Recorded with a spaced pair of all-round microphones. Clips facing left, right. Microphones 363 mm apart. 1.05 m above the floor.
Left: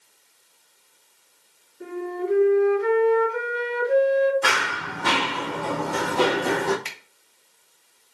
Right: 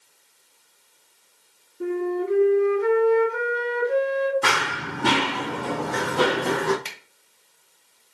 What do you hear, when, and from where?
1.8 s a flute: 50° right (ahead or behind), 2.5 m
4.4 s running footsteps: 50° right (ahead or behind), 1.7 m; by 6.8 s 15° right (ahead or behind), 1.8 m
6.8 s a finger snap: 50° right (ahead or behind), 1.1 m